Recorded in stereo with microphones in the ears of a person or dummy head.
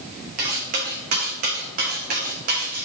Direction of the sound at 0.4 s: 45° right (ahead or behind).